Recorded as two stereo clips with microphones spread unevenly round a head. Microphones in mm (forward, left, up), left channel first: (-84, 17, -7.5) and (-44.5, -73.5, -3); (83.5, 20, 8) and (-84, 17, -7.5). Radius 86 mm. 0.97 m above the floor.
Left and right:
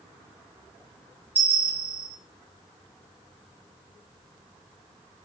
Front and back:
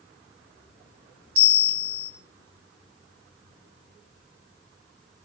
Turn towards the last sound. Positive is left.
turn(degrees=-140)